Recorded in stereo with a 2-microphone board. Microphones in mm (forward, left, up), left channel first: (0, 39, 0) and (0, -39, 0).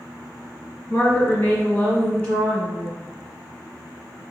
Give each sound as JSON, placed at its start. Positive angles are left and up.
{"t": 0.9, "sound": "a woman speaking", "side_deg": 40, "distance_m": 1.5}